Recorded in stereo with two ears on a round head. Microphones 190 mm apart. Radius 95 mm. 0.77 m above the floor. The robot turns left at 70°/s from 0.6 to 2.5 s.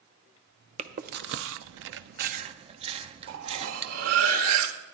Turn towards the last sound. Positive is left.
turn(degrees=-75)  # may be behind; listen again after turning